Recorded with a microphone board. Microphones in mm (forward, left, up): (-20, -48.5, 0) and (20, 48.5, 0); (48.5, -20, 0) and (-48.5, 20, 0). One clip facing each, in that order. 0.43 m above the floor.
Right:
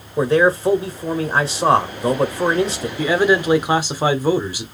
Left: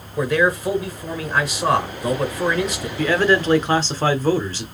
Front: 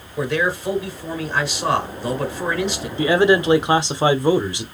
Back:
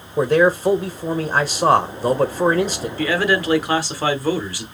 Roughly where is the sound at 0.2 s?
Behind.